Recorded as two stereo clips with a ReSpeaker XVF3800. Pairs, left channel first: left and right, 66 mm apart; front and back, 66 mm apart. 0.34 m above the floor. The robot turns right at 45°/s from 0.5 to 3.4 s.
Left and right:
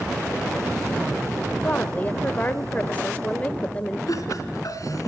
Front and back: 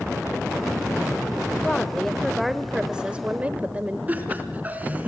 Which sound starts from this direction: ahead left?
A woman speaking, at 1.6 s.